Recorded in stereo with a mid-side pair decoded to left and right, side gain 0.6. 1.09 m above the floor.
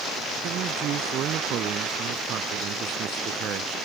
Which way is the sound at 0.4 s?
55° right.